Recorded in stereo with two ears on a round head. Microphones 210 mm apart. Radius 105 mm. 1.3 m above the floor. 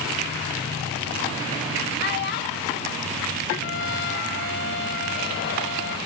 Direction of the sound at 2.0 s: 45° left (ahead or behind).